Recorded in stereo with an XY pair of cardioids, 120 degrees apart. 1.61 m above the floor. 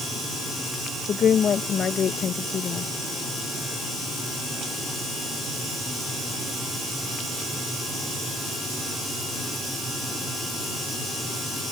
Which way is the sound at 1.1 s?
50° left.